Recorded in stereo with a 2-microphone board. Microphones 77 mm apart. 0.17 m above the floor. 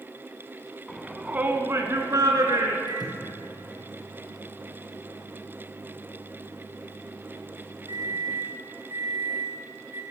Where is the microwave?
70° right (ahead or behind), 3 m.